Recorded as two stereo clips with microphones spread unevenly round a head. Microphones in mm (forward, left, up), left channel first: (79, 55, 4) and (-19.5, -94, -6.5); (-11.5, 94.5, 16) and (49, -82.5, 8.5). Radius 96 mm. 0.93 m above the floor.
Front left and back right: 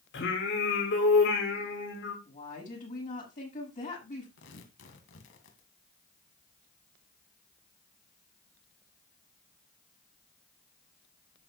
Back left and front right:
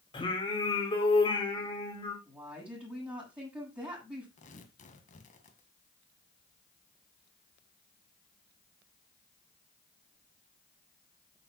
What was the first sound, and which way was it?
Singing, 45° left.